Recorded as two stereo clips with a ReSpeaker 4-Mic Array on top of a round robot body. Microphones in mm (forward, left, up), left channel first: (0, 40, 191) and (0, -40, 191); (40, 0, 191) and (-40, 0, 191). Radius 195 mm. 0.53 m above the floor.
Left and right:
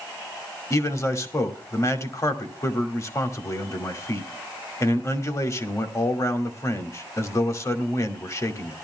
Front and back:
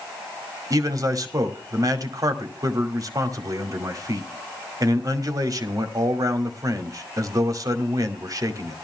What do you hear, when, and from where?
0.7 s a man speaking: 140° left, 2.5 m